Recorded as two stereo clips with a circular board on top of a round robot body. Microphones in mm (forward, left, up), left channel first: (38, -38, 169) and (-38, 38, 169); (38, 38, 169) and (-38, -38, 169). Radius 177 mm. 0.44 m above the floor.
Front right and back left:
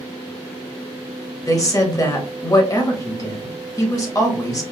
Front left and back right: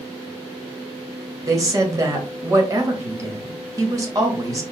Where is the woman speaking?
90° right, 1.3 m.